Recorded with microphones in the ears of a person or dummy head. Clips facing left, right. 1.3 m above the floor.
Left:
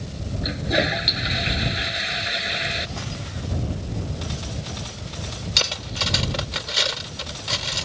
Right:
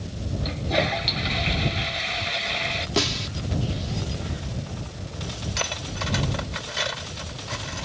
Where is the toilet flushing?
15° left (ahead or behind).